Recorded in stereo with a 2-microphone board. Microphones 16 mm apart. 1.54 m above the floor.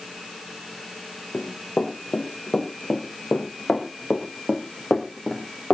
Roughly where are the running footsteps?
Left.